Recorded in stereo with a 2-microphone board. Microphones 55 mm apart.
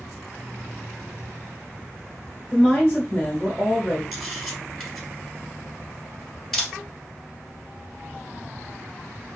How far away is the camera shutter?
About 1.7 m.